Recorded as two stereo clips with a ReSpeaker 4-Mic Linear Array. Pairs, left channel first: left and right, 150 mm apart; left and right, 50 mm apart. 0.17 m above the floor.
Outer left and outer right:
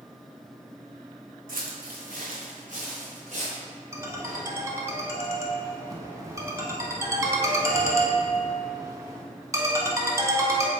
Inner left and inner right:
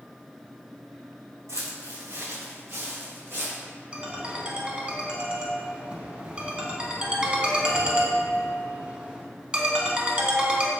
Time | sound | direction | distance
1.5 | footsteps | 75° right (ahead or behind) | 0.6 m
3.9 | a ringtone | 20° right (ahead or behind) | 0.6 m